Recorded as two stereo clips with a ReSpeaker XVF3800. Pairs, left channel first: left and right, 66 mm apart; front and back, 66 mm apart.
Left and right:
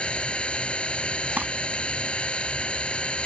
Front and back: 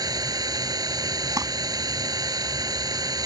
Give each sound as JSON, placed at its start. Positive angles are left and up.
{"t": 0.0, "sound": "an engine running", "azimuth_deg": 165}
{"t": 1.4, "sound": "crumpling", "azimuth_deg": -155}